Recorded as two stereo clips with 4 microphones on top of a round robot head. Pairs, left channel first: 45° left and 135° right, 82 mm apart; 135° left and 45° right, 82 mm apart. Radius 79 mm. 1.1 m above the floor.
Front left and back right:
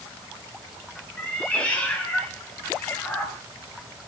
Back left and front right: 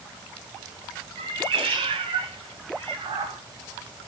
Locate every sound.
1.2 s a cat meowing: 30° right, 1.8 m; by 3.4 s 25° right, 4.5 m